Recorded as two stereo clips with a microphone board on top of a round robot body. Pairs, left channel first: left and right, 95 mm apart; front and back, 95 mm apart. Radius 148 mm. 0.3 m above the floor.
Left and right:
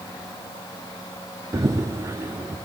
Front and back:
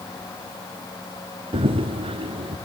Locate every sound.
1.5 s running footsteps: 150° right, 1.3 m